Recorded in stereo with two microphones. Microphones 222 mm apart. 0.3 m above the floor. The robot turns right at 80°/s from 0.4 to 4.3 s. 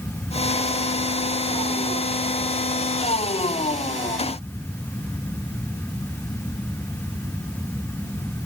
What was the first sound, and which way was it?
Only background noise.